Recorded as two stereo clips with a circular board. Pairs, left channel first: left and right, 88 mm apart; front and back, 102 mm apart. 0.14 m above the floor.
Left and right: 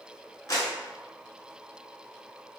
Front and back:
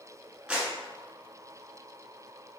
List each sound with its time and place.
0.5 s a clap: 105° left, 1.3 m